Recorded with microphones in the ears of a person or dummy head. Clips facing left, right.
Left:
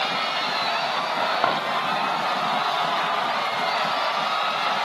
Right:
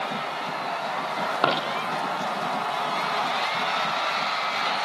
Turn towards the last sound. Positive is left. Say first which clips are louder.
# left 1 dB
turn(degrees=-35)  # may be behind; listen again after turning